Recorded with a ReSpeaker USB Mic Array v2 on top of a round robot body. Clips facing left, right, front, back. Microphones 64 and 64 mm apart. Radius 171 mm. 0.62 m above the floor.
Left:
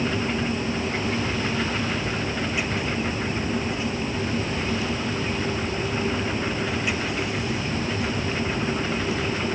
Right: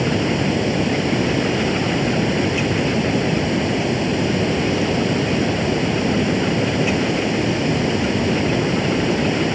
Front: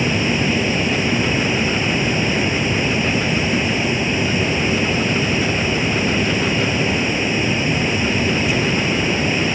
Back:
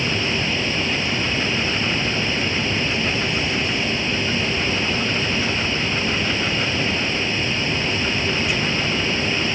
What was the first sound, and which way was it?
Running water, 75° right.